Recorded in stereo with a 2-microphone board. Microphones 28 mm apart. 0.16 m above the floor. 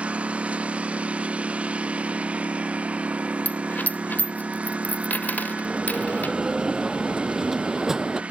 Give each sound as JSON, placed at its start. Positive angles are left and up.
{"t": 0.0, "sound": "a lawn mower", "side_deg": -50}
{"t": 3.5, "sound": "a dropped coin", "side_deg": 85}
{"t": 5.7, "sound": "a bell", "side_deg": -15}